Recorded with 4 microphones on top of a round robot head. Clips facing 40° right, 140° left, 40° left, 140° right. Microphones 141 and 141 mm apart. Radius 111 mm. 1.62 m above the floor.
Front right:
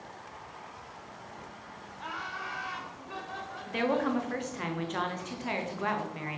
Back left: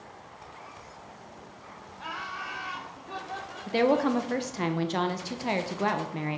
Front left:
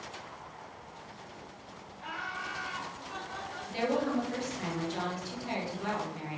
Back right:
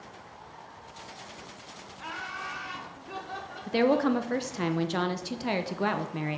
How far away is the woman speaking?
About 0.6 m.